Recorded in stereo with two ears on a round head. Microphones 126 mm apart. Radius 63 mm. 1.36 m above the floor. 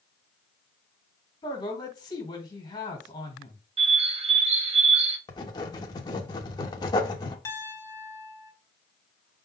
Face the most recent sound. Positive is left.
turn(degrees=20)  # may be behind; listen again after turning